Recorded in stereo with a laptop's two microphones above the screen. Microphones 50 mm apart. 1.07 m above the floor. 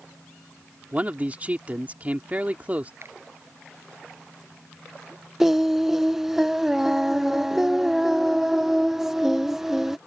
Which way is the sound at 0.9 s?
30° right (ahead or behind).